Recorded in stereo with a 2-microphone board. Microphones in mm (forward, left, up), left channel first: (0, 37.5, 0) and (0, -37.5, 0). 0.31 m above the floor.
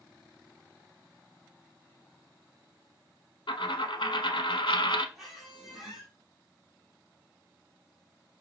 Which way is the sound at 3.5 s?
85° left.